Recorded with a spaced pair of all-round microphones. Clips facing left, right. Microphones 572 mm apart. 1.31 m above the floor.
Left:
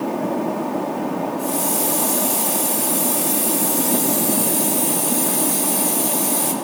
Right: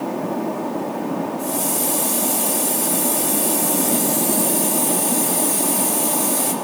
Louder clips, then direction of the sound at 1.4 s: Left 1 dB; 75° left (ahead or behind).